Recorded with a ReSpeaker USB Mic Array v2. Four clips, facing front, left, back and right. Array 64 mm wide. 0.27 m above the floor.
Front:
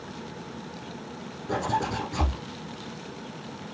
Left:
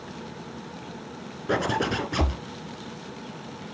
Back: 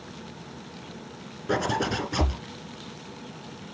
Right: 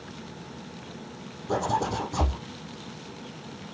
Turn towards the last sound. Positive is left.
turn(degrees=115)